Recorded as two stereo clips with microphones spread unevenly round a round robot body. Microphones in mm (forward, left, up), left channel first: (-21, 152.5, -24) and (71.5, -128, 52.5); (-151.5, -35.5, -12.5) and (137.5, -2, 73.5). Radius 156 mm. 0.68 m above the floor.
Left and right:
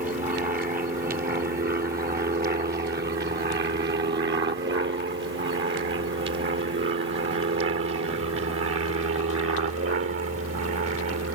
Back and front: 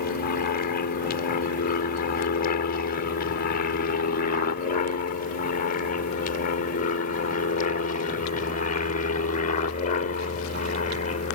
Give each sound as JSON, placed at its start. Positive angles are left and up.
{"t": 0.0, "sound": "an aircraft", "azimuth_deg": -140}